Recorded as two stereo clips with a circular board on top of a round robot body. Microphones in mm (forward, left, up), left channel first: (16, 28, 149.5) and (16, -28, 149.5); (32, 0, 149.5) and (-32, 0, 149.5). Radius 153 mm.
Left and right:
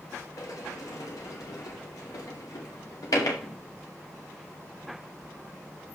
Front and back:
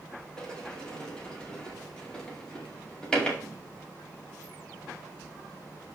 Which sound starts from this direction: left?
A sliding door, at 0.4 s.